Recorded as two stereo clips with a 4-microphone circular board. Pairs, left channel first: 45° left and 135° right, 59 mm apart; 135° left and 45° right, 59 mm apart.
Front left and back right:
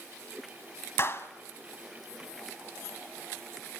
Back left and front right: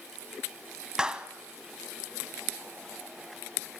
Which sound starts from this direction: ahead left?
A clap, at 1.0 s.